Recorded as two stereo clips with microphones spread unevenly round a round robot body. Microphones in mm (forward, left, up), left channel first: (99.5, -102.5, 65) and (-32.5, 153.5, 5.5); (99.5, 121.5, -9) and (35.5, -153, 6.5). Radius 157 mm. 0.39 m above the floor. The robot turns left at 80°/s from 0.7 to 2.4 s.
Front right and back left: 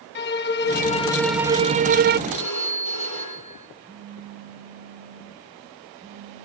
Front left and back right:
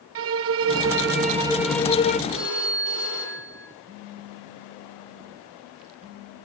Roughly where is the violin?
Behind right.